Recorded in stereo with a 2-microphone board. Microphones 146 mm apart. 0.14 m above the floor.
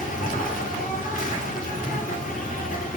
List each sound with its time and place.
0.0 s an insect: 65° left (ahead or behind), 1.2 m